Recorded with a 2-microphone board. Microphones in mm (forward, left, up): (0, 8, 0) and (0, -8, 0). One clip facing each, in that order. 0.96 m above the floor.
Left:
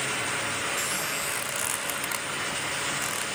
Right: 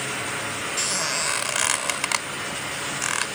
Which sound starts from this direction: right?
A squeak, at 0.8 s.